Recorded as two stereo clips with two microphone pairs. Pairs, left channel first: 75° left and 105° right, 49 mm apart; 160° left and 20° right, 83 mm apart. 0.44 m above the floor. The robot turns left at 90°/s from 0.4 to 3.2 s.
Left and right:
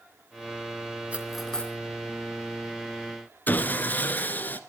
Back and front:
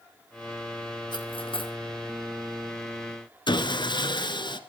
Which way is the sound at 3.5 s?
125° left.